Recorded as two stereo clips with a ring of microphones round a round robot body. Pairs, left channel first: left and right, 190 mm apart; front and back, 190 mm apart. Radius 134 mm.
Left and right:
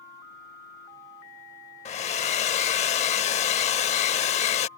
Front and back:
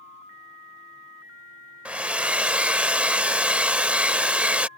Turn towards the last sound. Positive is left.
turn(degrees=100)